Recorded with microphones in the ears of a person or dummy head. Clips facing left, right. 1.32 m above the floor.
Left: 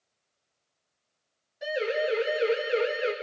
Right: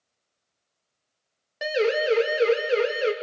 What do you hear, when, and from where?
1.6 s a siren: 75° right (ahead or behind), 2 m; by 3.1 s 55° right (ahead or behind), 2.5 m